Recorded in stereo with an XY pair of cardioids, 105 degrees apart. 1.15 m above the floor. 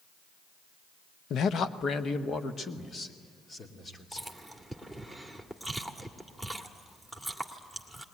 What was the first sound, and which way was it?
A man speaking, 65° left.